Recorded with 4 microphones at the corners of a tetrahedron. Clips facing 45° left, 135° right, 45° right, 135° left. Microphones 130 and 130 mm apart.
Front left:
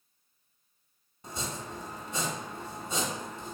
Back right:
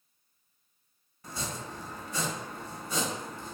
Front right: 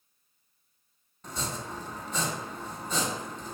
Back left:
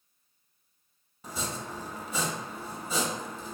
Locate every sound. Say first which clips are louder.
1.2 s chopping: front left 1 dB, even; 60° left, 0.6 m